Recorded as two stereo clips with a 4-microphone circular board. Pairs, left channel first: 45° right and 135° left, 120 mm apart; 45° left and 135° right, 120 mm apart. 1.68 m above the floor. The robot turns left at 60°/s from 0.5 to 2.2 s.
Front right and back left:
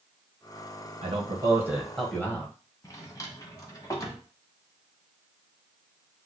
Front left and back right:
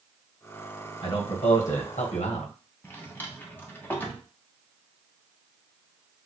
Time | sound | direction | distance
1.0 | a man speaking | 100° left | 1.4 m
2.8 | a drawer | 15° right | 0.9 m